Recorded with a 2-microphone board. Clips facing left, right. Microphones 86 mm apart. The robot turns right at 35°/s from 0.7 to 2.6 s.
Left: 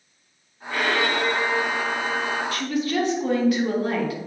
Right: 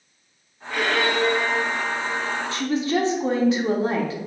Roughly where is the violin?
Behind left.